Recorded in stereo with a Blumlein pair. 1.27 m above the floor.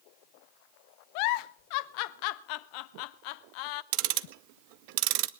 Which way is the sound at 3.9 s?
45° right.